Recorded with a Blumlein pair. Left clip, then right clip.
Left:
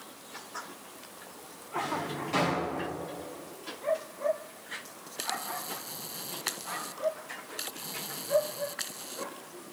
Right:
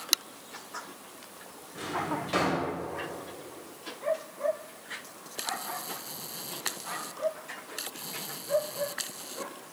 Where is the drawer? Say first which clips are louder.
Even; 15° right, 3.5 m.